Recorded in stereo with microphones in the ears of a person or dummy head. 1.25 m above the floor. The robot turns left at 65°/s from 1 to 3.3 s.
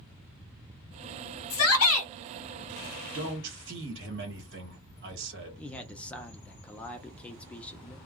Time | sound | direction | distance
1.5 | a shout | 105° left | 1.2 m
3.1 | a man speaking | 65° right (ahead or behind) | 1.0 m
5.6 | a man speaking | 5° left (ahead or behind) | 0.5 m